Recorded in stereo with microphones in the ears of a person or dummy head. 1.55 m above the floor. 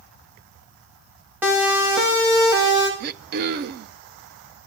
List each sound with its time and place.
1.4 s a siren: 15° right (ahead or behind), 6 m; by 2.9 s 35° right (ahead or behind), 7 m
3.0 s throat clearing: 50° right (ahead or behind), 0.8 m